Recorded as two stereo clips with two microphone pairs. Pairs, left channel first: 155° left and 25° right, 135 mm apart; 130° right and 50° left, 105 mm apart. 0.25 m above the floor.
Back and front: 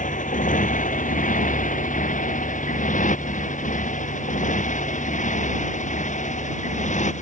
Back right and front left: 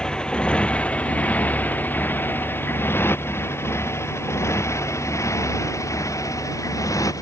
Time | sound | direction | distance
0.0 | a motorcycle | 150° left | ?